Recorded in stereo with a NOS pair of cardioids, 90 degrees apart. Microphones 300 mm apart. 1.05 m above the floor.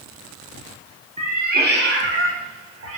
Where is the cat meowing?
20° right, 1.3 m; by 3.0 s 50° right, 2.5 m.